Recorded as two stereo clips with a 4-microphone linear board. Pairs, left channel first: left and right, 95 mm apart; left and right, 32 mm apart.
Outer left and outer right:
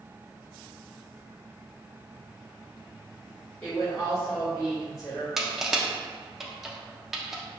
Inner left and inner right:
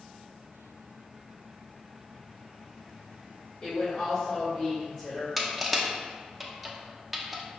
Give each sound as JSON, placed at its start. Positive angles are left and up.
{"t": 3.6, "sound": "a woman speaking", "side_deg": 25, "distance_m": 1.7}
{"t": 5.4, "sound": "crushing", "side_deg": -5, "distance_m": 0.5}